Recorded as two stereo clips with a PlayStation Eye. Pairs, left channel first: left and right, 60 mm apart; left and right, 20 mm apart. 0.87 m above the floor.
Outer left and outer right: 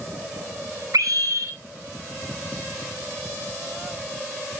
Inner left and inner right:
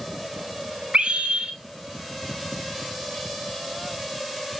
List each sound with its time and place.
0.9 s a scream: 75° right (ahead or behind), 3 m